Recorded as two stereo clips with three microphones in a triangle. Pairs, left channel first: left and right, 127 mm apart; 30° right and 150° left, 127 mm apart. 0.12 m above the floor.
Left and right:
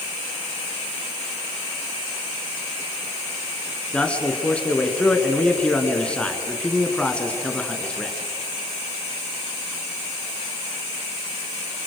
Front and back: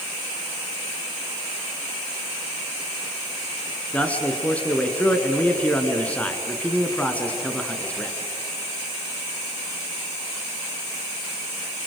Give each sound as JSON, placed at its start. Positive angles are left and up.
{"t": 3.9, "sound": "a man speaking", "azimuth_deg": 25, "distance_m": 1.7}